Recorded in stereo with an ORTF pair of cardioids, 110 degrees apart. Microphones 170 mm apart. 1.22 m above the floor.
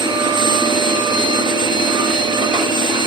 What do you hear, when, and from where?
0.0 s a machine running: 25° right, 1.1 m